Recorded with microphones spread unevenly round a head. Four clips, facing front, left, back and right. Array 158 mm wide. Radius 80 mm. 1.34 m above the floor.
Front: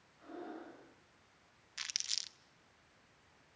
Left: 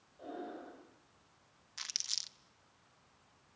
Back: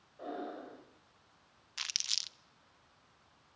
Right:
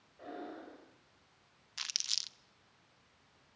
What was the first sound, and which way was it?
Breathing, straight behind.